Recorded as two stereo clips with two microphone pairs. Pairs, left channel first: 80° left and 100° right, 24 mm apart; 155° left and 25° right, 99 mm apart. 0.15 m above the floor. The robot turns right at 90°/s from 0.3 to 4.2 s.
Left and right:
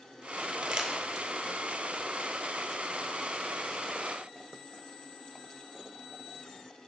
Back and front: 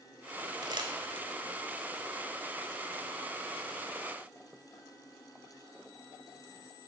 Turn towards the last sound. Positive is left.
turn(degrees=-100)